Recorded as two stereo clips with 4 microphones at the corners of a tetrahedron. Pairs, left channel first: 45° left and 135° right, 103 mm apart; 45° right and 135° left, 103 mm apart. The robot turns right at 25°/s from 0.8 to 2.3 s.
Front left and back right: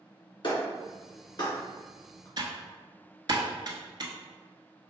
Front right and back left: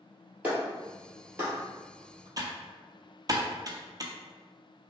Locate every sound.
0.4 s a clap: 65° left, 1.9 m; by 2.3 s 100° left, 1.9 m
2.4 s typing on a keyboard: 175° right, 0.7 m